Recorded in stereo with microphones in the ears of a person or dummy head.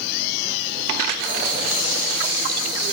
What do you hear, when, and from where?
1.2 s writing: 45° right (ahead or behind), 4.5 m